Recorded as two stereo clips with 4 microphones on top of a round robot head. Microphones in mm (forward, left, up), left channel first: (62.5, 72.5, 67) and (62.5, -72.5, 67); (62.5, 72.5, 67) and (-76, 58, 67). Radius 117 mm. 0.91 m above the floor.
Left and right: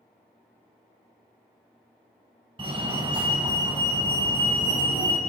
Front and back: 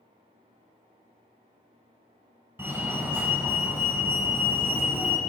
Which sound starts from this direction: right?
A fire alarm, at 2.6 s.